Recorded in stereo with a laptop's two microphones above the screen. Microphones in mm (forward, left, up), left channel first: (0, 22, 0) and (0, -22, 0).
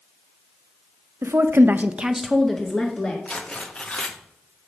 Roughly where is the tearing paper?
Left.